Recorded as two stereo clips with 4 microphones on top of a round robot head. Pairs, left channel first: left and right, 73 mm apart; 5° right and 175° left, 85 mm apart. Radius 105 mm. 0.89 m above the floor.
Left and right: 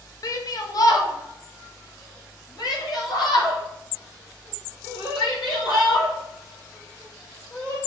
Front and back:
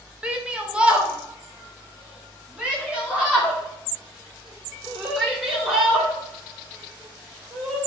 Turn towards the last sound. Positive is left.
turn(degrees=100)